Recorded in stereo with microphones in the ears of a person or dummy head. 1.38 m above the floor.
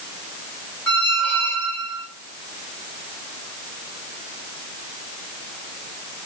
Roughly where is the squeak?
Centre.